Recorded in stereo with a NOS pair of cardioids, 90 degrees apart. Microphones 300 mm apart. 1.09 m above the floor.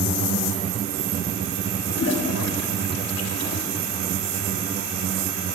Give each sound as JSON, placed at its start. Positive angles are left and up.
{"t": 1.9, "sound": "a toilet flushing", "azimuth_deg": 55, "distance_m": 2.5}